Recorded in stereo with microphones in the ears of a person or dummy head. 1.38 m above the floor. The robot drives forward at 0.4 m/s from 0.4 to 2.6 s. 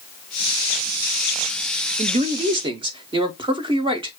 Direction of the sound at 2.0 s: 30° right (ahead or behind).